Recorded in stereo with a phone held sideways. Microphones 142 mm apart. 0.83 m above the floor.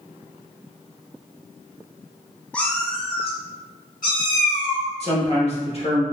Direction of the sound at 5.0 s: 45° left (ahead or behind).